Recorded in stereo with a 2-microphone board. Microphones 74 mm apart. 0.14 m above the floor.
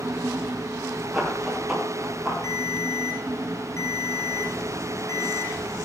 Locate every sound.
1.1 s running footsteps: 5° right (ahead or behind), 9.5 m; by 2.3 s 10° right (ahead or behind), 9 m
2.4 s a ringtone: 45° left (ahead or behind), 3 m